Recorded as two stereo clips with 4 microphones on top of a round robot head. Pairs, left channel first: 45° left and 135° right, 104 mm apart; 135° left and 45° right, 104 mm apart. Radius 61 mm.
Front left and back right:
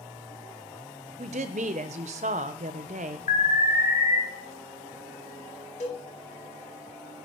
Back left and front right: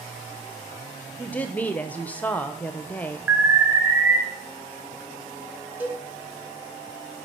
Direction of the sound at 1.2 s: 150° right.